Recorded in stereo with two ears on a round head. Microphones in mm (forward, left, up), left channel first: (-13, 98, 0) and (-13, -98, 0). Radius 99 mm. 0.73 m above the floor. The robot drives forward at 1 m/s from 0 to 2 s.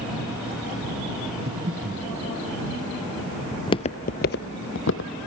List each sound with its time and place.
1.5 s breathing: 45° right (ahead or behind), 1.1 m; by 2.1 s 30° right (ahead or behind), 1.5 m
3.5 s footsteps: 10° left (ahead or behind), 0.8 m; by 5.1 s 65° left (ahead or behind), 2.0 m